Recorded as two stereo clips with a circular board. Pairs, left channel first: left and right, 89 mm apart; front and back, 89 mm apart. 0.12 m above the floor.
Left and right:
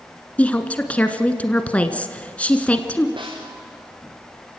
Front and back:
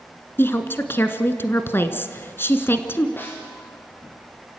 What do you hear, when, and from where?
0.4 s a woman speaking: 30° left, 1.3 m
3.2 s a snare drum: 65° right, 4.5 m